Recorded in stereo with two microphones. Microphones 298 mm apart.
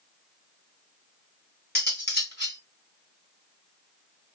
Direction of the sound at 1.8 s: 35° left (ahead or behind).